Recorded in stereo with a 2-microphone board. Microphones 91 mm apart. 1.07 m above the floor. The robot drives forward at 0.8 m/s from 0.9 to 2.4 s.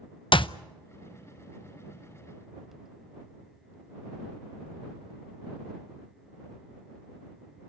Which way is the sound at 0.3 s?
65° left (ahead or behind).